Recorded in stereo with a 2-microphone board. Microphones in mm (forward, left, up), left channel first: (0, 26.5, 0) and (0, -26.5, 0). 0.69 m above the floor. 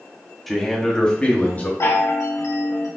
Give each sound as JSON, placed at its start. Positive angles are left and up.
{"t": 0.5, "sound": "a man speaking", "side_deg": 0, "distance_m": 1.1}
{"t": 1.8, "sound": "a chime", "side_deg": 75, "distance_m": 1.1}